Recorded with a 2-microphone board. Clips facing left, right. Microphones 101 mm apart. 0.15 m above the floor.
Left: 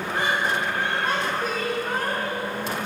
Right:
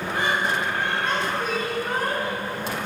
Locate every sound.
0.1 s laughter: 25° left (ahead or behind), 1.5 m; by 2.5 s 20° right (ahead or behind), 1.3 m